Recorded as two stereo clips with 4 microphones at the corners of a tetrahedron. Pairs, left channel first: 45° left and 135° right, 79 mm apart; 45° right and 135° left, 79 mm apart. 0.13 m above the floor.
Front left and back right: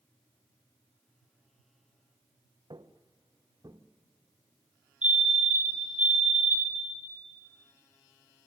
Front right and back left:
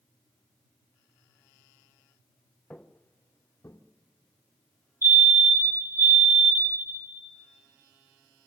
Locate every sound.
2.7 s footsteps: 120° right, 1.0 m; by 3.8 s 95° right, 1.7 m
5.0 s a fire alarm: 155° left, 3 m